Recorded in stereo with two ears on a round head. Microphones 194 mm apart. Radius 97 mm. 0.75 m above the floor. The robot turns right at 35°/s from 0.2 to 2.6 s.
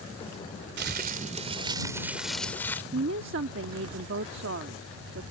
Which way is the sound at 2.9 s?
60° right (ahead or behind).